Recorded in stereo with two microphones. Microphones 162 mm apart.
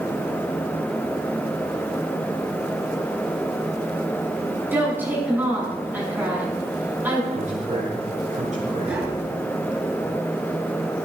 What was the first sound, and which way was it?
A woman speaking, 10° right (ahead or behind).